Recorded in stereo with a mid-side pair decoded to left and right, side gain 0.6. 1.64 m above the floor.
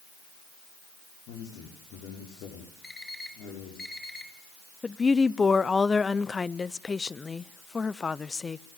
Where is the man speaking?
65° left, 5.5 m.